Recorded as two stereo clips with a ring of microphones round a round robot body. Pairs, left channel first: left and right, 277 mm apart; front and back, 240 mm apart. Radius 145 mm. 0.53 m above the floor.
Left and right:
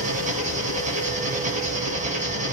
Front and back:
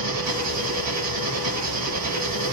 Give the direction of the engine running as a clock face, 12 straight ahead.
5 o'clock.